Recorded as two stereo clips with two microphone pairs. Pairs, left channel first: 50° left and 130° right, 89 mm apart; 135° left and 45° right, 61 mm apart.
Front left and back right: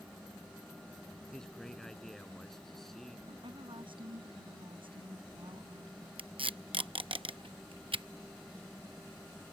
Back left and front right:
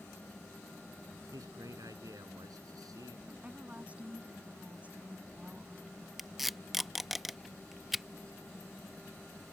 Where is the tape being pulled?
130° right.